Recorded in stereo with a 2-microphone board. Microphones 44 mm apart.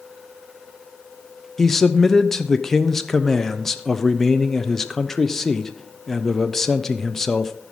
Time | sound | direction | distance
1.6 | a man speaking | 10° left (ahead or behind) | 0.6 m